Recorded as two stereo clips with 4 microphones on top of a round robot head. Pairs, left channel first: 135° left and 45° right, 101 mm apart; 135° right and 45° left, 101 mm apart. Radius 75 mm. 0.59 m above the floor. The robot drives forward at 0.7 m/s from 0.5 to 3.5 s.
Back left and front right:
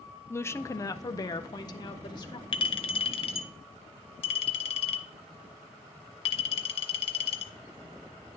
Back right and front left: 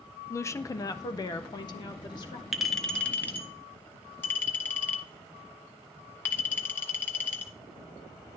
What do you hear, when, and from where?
0.3 s a woman speaking: 175° right, 0.7 m; by 2.4 s straight behind, 1.9 m
2.5 s a clink: 130° left, 0.9 m; by 7.5 s 155° left, 1.4 m